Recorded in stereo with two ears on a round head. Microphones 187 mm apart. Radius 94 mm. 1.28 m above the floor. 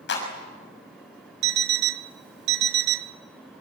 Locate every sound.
0.1 s a clap: 60° left (ahead or behind), 6 m
1.4 s an alarm clock: 55° right (ahead or behind), 0.8 m